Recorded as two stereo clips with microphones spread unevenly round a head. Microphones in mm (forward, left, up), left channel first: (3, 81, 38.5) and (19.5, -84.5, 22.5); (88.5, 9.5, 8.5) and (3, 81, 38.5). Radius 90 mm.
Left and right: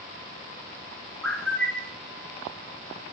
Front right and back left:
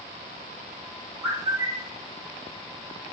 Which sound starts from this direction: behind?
A bird, at 1.2 s.